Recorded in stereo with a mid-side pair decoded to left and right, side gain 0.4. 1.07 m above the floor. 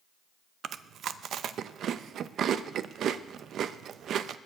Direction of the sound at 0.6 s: 70° right.